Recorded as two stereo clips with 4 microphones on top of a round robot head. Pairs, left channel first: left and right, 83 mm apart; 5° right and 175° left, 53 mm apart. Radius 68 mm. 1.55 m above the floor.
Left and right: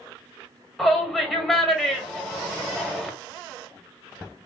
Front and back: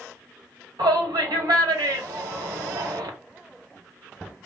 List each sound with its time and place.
0.8 s a shout: straight behind, 1.0 m